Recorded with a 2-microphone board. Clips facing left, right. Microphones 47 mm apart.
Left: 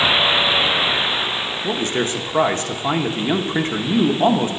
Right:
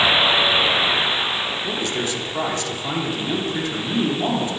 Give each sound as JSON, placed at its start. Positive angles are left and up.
{"t": 1.6, "sound": "a man speaking", "side_deg": 35, "distance_m": 1.0}